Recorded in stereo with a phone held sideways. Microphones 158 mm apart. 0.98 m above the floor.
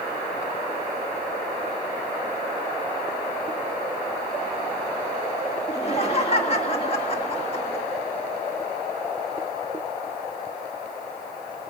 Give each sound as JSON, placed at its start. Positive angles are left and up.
{"t": 5.7, "sound": "laughter", "side_deg": 40, "distance_m": 1.6}